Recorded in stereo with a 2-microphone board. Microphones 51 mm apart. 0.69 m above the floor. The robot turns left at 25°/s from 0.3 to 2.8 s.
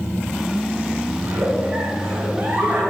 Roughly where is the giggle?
Right.